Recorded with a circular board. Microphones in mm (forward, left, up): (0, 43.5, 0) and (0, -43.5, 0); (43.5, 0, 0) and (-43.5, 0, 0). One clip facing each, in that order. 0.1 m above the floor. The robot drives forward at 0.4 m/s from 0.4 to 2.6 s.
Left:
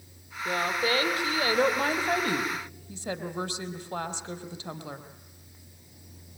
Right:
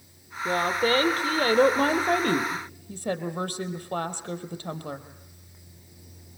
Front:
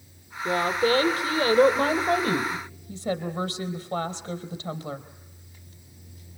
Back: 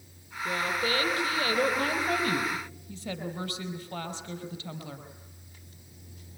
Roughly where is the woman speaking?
Ahead right.